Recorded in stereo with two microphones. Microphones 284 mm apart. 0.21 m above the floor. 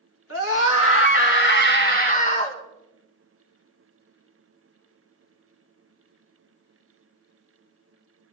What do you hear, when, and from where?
0.3 s a scream: 50° left (ahead or behind), 2.5 m; by 2.6 s 20° left (ahead or behind), 1.9 m